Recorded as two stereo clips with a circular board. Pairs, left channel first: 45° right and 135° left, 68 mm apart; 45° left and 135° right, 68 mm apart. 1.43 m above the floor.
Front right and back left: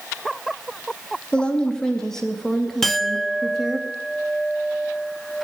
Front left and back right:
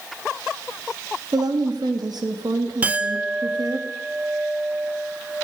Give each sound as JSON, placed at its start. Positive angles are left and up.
{"t": 1.3, "sound": "a woman speaking", "azimuth_deg": -120, "distance_m": 3.0}
{"t": 2.8, "sound": "a clink", "azimuth_deg": -125, "distance_m": 0.6}